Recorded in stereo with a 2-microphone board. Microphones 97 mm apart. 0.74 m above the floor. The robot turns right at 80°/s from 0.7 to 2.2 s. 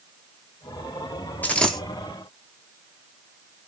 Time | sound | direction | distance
1.4 | a dropped coin | 150° left | 0.8 m